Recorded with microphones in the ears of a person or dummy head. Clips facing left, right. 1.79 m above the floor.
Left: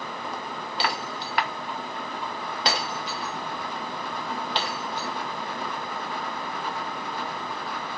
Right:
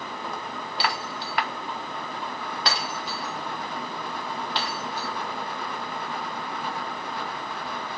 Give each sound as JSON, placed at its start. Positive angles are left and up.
{"t": 0.8, "sound": "breaking glass", "side_deg": 25, "distance_m": 2.5}